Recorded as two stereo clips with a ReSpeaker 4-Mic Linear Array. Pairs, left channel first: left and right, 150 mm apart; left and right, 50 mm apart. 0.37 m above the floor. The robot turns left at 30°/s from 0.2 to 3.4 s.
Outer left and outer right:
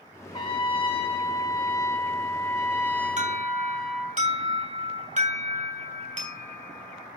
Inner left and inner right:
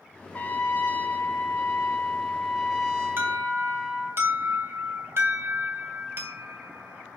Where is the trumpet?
95° left, 1.7 m; by 4.2 s 5° left, 1.7 m.